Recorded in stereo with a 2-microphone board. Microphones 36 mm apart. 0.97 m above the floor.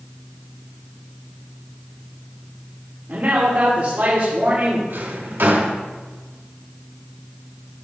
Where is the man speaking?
50° right (ahead or behind), 2.5 m.